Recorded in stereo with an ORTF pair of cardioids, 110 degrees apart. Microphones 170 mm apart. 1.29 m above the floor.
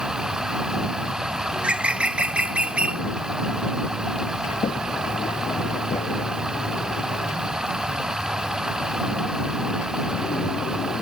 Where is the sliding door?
40° left.